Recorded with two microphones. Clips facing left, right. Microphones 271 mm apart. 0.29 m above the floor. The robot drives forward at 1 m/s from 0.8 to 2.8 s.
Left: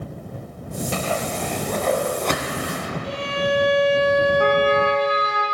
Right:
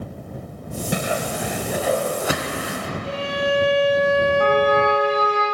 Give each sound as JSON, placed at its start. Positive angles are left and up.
{"t": 0.9, "sound": "a whoosh", "side_deg": -15, "distance_m": 0.6}
{"t": 3.0, "sound": "a violin", "side_deg": -65, "distance_m": 2.5}
{"t": 4.4, "sound": "a trumpet", "side_deg": 15, "distance_m": 3.5}